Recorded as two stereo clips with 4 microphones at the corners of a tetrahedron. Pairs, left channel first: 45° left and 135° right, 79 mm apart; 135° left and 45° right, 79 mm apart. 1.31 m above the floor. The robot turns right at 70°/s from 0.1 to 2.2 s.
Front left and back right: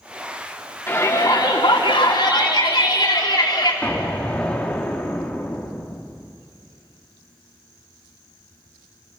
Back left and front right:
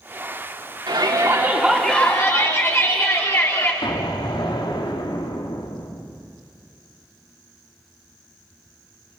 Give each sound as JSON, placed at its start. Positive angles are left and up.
{"t": 0.9, "sound": "a shout", "azimuth_deg": -15, "distance_m": 4.0}
{"t": 3.8, "sound": "an explosion", "azimuth_deg": 120, "distance_m": 2.0}